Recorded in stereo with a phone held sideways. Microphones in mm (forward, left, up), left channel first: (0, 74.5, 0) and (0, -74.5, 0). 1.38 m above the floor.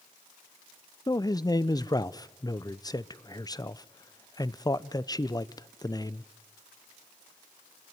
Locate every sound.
1.1 s a man speaking: 25° left (ahead or behind), 0.6 m